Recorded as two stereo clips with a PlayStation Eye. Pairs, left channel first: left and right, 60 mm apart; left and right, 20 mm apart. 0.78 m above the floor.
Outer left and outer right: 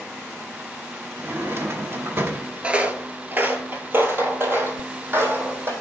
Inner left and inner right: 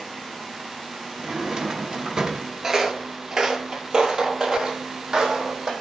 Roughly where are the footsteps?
Centre.